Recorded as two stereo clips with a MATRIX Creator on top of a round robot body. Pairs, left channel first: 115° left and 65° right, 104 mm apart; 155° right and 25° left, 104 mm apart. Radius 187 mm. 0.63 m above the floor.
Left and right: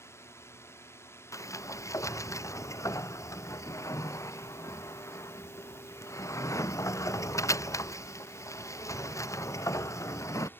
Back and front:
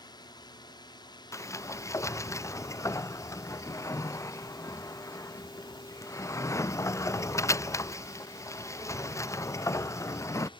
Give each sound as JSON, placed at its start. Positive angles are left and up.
{"t": 0.0, "sound": "a drone", "azimuth_deg": 170}
{"t": 1.3, "sound": "a sliding door", "azimuth_deg": 155}